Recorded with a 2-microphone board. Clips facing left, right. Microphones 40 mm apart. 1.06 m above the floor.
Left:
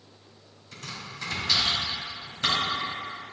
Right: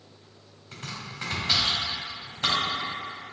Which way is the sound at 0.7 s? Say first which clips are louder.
Right 1 dB; 35° right (ahead or behind).